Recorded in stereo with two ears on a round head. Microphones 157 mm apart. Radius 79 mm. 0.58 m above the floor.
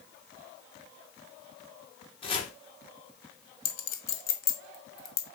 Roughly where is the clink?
Left.